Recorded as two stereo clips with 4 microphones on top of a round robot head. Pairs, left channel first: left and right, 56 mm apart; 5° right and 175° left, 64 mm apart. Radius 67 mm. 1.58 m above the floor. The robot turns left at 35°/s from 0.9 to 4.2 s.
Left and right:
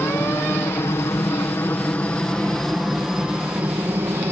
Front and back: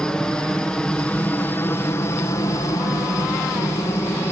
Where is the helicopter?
70° left; by 4.3 s 50° right.